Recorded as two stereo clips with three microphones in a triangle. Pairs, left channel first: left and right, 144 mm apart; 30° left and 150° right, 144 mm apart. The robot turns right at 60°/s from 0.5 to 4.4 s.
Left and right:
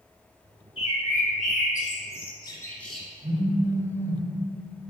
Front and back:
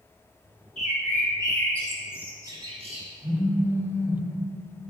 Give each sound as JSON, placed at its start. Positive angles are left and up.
{"t": 0.8, "sound": "a bird", "azimuth_deg": 45, "distance_m": 0.6}
{"t": 3.2, "sound": "a phone buzzing", "azimuth_deg": -90, "distance_m": 1.2}